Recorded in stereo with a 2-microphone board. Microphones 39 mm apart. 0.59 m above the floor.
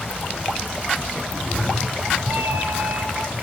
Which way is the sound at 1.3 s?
30° right (ahead or behind).